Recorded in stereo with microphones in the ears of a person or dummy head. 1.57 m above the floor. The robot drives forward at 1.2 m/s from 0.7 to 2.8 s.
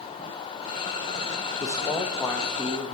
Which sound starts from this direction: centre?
A man speaking, at 1.6 s.